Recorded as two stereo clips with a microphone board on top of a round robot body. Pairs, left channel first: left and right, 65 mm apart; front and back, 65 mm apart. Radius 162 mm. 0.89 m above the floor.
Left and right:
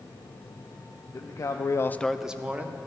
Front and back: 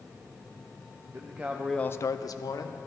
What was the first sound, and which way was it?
A man speaking, 125° left.